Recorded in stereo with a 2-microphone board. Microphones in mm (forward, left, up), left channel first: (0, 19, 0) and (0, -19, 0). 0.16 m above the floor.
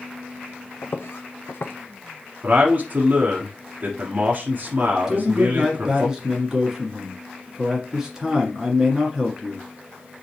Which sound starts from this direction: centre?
A man speaking, at 5.1 s.